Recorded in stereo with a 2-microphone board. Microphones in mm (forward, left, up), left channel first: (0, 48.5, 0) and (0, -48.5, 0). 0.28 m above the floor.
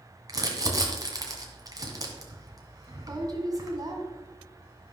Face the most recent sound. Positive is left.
turn(degrees=-40)  # may be behind; listen again after turning